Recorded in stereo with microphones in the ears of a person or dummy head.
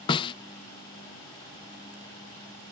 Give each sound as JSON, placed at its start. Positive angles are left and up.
{"t": 0.1, "sound": "a snare drum", "side_deg": 25}